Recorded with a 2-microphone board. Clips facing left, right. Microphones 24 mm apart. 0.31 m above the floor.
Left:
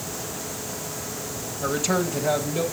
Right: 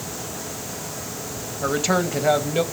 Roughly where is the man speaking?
Centre.